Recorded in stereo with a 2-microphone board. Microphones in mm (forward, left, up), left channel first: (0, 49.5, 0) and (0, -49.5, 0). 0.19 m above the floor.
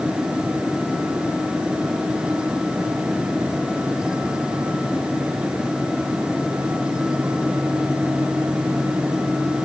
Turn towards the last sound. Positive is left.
No sound to turn to.